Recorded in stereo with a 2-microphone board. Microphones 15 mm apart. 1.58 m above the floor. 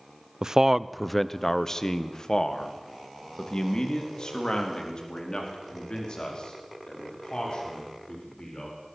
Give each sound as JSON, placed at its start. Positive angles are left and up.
{"t": 0.4, "sound": "a man speaking", "side_deg": -40, "distance_m": 0.6}